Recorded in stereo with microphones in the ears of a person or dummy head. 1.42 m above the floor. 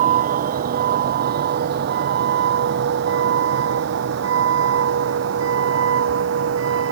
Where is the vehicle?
50° right (ahead or behind); by 6.9 s 85° right.